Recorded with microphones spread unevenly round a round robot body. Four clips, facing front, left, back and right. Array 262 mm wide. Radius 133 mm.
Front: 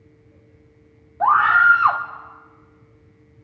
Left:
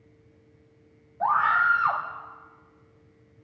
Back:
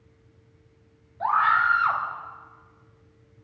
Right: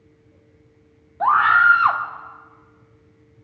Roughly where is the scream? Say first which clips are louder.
Right 7 dB, front 7 dB; ahead right.